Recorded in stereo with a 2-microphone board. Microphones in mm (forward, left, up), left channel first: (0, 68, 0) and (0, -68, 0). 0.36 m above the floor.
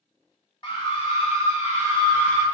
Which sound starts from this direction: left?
A scream, at 0.6 s.